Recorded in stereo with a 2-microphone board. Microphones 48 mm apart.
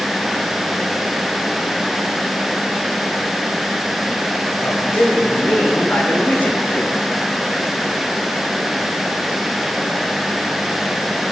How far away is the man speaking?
About 4.5 m.